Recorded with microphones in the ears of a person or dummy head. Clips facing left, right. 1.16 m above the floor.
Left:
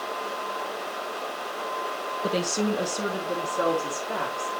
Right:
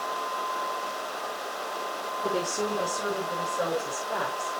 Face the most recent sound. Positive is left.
turn(degrees=75)  # may be behind; listen again after turning